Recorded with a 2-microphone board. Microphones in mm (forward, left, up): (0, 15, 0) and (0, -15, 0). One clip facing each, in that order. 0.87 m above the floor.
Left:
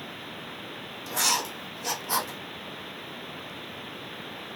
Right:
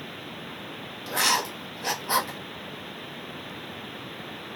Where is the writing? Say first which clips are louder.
Right 3 dB; 40° right (ahead or behind), 0.8 m.